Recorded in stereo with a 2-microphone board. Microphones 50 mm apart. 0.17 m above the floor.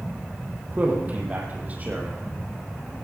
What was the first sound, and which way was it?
A man speaking, 30° right (ahead or behind).